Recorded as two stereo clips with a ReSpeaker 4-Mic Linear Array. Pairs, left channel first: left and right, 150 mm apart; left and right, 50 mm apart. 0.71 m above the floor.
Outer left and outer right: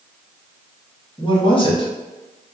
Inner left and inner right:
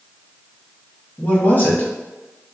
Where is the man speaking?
35° left (ahead or behind), 1.0 m.